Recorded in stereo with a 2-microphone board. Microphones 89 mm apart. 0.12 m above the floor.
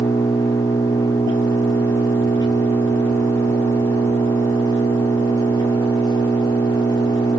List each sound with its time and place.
0.0 s an engine running: 50° left (ahead or behind), 7.5 m